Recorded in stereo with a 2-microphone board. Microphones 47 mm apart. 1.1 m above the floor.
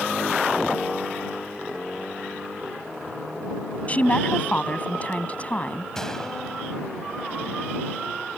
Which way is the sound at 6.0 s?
10° left (ahead or behind).